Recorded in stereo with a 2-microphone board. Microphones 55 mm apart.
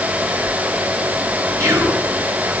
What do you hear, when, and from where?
1.6 s whispering: 60° right (ahead or behind), 3 m